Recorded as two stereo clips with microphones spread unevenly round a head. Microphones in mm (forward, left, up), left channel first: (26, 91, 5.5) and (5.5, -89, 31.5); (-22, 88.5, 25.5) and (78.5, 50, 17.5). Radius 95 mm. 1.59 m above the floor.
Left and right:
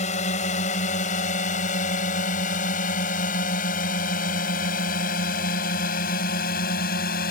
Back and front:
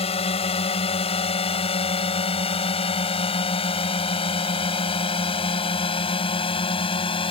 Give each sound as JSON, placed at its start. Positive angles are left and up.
{"t": 0.0, "sound": "a drone", "azimuth_deg": 140}